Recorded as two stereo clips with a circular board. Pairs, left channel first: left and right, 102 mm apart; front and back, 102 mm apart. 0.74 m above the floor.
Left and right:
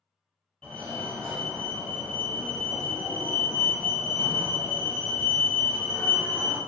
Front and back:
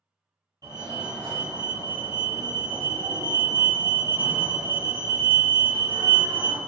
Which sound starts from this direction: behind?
A fire alarm, at 0.6 s.